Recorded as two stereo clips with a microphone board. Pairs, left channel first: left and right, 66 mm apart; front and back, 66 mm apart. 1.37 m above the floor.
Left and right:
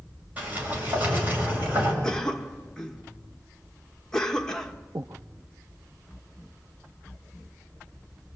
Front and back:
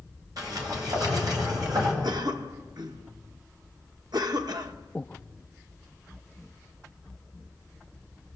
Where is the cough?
170° left, 1.6 m.